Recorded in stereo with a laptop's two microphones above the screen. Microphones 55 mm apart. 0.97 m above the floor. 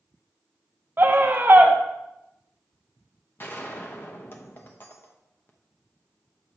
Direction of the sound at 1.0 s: 40° right (ahead or behind).